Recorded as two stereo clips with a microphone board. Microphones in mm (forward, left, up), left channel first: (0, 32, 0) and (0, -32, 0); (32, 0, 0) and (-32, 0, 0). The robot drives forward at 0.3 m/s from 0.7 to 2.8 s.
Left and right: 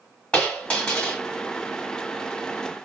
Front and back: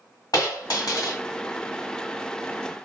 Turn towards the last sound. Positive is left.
turn(degrees=35)